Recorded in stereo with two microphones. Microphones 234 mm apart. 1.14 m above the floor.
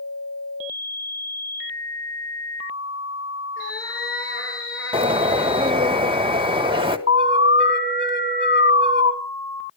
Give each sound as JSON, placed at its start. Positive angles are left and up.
{"t": 3.6, "sound": "a cat meowing", "side_deg": 60, "distance_m": 8.5}
{"t": 4.9, "sound": "a bird", "side_deg": -20, "distance_m": 1.4}
{"t": 7.1, "sound": "an alarm", "side_deg": -20, "distance_m": 3.5}